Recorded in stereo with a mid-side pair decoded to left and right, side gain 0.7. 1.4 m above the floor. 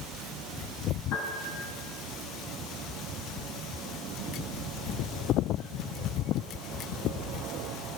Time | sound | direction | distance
1.1 | a piano | 65° left | 7.5 m